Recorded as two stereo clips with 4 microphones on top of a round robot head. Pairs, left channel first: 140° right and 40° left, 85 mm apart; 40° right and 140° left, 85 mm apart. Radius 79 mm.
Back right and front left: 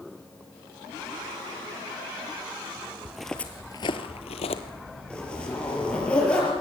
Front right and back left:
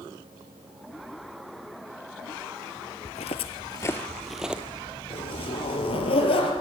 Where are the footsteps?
40° right, 1.3 m; by 4.6 s 145° right, 1.5 m.